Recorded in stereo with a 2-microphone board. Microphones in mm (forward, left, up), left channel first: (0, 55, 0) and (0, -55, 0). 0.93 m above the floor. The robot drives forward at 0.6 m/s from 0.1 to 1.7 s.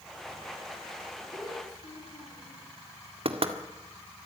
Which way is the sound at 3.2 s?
55° right (ahead or behind).